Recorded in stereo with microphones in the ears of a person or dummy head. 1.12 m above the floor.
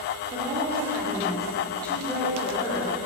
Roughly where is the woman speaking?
Right.